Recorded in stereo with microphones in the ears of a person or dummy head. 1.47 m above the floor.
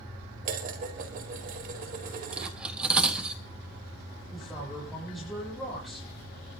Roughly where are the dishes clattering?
Right.